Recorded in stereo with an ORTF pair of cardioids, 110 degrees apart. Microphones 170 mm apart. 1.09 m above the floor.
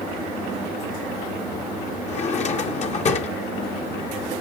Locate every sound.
2.1 s a drawer: 45° left, 1.1 m